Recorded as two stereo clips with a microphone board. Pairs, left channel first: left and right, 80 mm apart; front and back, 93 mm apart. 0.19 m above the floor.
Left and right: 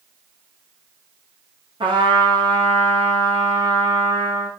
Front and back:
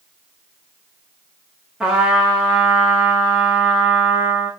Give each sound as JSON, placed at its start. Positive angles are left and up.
{"t": 1.8, "sound": "a trumpet", "azimuth_deg": -95, "distance_m": 9.0}